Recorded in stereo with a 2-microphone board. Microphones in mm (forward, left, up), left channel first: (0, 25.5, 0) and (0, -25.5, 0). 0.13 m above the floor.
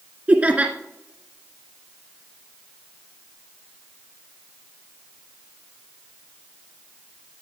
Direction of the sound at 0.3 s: 25° right (ahead or behind).